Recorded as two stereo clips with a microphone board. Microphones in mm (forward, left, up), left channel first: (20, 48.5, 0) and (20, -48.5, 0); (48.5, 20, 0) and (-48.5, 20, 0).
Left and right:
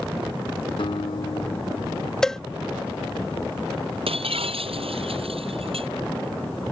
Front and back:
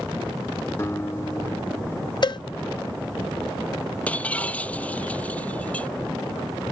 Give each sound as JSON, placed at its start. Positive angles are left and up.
{"t": 0.8, "sound": "a guitar", "azimuth_deg": 65}
{"t": 2.2, "sound": "a cowbell", "azimuth_deg": 10}
{"t": 4.1, "sound": "breaking glass", "azimuth_deg": -75}